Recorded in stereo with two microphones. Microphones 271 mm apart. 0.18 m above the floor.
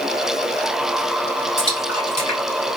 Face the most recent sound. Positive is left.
turn(degrees=65)  # may be behind; listen again after turning